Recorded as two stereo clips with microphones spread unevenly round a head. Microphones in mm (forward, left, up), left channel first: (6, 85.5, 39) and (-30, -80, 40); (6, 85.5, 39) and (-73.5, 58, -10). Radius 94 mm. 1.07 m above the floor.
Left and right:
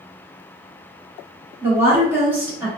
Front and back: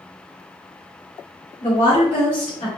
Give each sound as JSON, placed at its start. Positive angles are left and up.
{"t": 1.6, "sound": "a woman speaking", "azimuth_deg": -25, "distance_m": 1.2}